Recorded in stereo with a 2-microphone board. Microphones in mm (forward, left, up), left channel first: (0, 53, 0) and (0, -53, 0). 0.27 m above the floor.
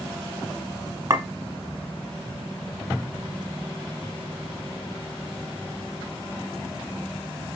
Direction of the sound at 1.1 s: 30° right (ahead or behind).